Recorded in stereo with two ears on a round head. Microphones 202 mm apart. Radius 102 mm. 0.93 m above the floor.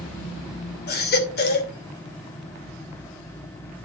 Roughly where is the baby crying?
Left.